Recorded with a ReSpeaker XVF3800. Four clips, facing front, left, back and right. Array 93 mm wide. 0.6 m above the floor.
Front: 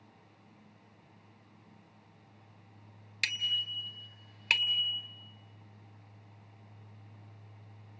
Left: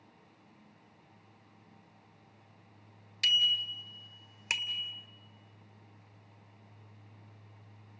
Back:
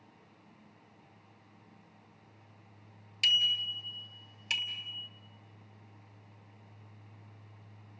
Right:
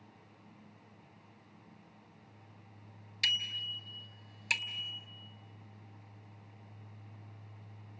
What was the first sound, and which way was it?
A bicycle bell, 5° left.